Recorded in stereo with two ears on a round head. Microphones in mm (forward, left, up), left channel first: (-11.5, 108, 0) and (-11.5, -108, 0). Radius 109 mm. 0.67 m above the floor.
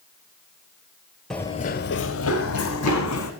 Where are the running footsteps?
Centre (ahead or behind), 0.9 m; by 3.3 s 60° left (ahead or behind), 2.5 m.